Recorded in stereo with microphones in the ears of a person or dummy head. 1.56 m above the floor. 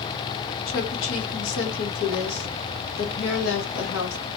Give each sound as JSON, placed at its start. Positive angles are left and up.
{"t": 0.7, "sound": "a woman speaking", "side_deg": 75, "distance_m": 1.0}